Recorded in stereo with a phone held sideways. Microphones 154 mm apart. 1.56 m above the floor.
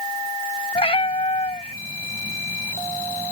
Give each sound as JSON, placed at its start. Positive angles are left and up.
{"t": 0.8, "sound": "a cat meowing", "side_deg": 40}